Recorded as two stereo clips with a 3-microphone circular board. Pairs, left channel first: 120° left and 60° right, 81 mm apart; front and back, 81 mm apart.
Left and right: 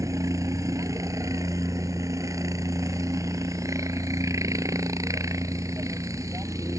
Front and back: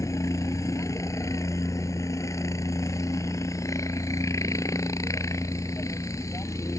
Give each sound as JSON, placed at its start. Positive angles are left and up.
{"t": 0.0, "sound": "a helicopter", "azimuth_deg": -30}